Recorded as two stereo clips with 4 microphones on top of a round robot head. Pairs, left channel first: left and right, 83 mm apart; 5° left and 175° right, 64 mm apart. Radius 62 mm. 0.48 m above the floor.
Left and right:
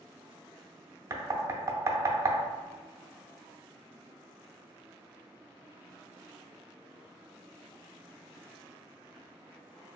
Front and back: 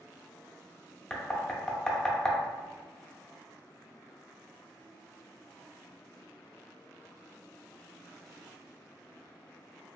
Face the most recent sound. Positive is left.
turn(degrees=-75)